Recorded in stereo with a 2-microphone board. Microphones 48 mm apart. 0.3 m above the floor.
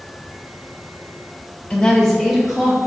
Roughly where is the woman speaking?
Centre.